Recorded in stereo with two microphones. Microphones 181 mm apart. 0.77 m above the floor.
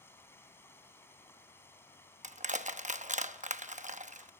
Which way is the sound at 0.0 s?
15° left (ahead or behind).